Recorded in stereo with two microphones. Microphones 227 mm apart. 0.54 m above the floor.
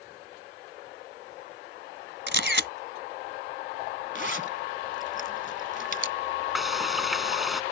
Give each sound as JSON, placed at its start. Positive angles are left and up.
{"t": 2.3, "sound": "a camera shutter", "side_deg": -55}
{"t": 4.2, "sound": "a zipper", "side_deg": -55}
{"t": 6.5, "sound": "frying", "side_deg": 0}